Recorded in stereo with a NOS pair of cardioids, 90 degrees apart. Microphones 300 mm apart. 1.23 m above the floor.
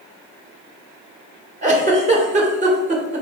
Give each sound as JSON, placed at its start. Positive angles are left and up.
{"t": 1.6, "sound": "a giggle", "azimuth_deg": -25, "distance_m": 1.0}